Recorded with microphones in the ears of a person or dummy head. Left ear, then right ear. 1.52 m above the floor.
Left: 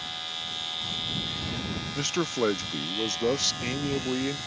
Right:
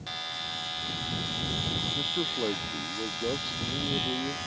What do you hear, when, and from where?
1.9 s a man speaking: 70° left (ahead or behind)